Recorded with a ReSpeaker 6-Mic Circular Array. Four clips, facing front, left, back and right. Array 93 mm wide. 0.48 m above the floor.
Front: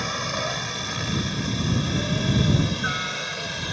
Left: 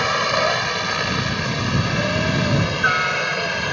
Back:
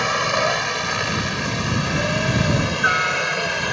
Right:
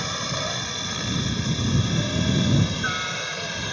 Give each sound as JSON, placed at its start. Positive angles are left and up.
{"t": 0.0, "sound": "a helicopter", "azimuth_deg": 130}